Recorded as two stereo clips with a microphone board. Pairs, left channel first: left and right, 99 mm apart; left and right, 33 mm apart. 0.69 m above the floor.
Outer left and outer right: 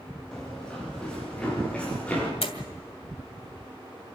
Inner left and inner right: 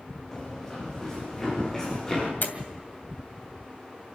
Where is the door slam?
75° left (ahead or behind), 2.5 m.